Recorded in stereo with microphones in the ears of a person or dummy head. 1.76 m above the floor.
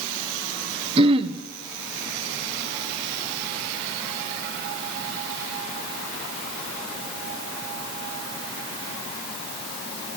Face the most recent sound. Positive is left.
turn(degrees=-30)  # may be behind; listen again after turning